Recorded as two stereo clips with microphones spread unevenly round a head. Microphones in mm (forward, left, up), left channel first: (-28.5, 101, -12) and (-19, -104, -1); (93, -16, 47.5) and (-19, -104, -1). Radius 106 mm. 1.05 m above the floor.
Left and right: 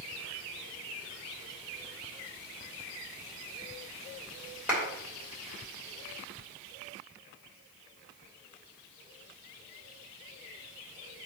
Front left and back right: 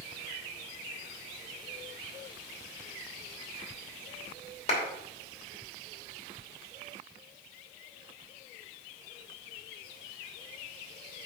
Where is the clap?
5° right, 3 m.